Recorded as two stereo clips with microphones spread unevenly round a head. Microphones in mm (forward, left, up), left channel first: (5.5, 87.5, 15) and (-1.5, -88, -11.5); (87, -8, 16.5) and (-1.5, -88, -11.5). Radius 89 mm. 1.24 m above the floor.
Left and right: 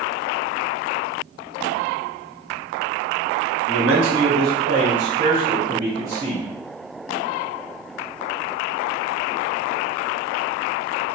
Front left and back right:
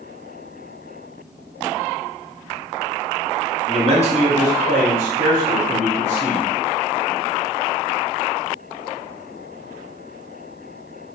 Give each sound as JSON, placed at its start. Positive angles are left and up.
{"t": 3.7, "sound": "a man speaking", "azimuth_deg": -95, "distance_m": 1.1}